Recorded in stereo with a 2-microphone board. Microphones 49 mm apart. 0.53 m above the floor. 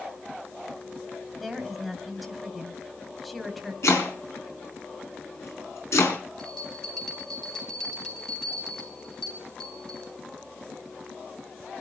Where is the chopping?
75° left (ahead or behind), 4.5 m.